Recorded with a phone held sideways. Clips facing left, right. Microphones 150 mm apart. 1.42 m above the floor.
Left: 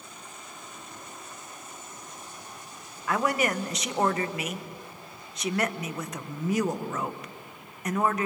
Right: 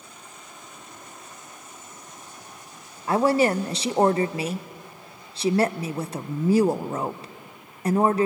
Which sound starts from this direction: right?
A woman speaking, at 3.1 s.